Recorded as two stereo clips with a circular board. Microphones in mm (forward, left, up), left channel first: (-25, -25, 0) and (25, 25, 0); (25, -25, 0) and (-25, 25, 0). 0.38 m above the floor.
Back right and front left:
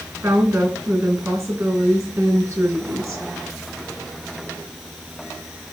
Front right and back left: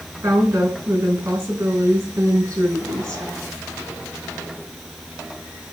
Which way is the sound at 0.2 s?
90° left.